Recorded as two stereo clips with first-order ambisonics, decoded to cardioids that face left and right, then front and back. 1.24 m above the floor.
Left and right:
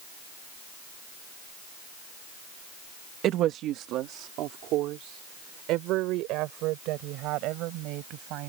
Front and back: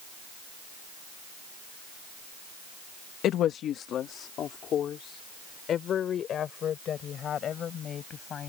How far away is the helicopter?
I don't hear a helicopter.